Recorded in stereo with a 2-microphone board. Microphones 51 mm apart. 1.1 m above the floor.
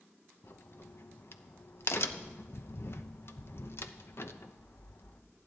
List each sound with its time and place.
0.4 s a crack: 55° left (ahead or behind), 0.8 m